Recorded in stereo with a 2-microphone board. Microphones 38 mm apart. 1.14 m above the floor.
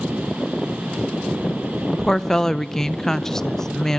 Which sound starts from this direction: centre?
A woman speaking, at 1.9 s.